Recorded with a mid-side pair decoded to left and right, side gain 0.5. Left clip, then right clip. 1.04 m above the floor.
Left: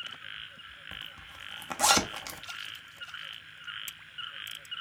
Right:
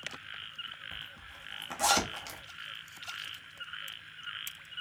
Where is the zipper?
30° left, 1.2 m.